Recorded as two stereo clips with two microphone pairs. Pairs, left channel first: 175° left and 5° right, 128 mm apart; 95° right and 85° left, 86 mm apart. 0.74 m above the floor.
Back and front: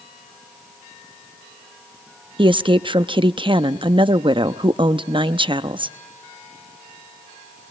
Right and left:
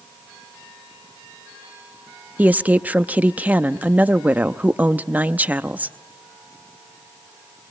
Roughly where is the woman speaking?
Ahead left.